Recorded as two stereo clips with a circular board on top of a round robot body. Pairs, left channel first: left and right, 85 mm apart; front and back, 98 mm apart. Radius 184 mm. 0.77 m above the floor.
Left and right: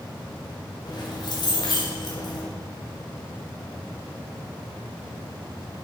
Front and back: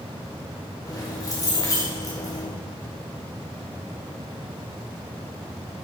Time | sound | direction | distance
0.9 | keys jangling | 55° left | 2 m